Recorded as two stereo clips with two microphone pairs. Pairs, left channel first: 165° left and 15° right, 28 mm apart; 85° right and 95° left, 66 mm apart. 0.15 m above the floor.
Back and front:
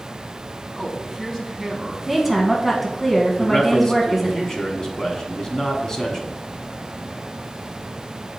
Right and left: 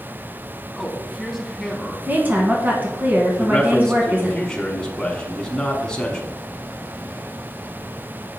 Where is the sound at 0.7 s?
170° right, 1.1 m; by 2.0 s 25° left, 1.1 m.